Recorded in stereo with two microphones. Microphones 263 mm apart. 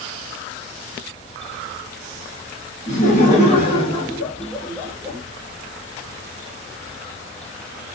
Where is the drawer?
I don't hear a drawer.